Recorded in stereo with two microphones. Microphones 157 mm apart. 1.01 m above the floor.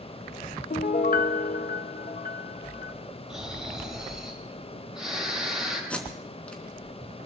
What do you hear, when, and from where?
0.7 s a piano: 65° left (ahead or behind), 0.7 m
3.3 s snoring: 5° right (ahead or behind), 6.5 m
5.9 s tape being pulled: 10° left (ahead or behind), 3 m